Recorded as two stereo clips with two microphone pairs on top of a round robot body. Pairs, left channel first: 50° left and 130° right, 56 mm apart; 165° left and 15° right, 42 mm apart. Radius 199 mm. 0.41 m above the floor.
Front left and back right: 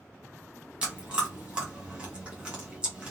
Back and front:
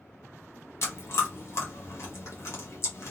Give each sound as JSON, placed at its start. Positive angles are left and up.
{"t": 0.8, "sound": "chewing", "azimuth_deg": 155, "distance_m": 1.1}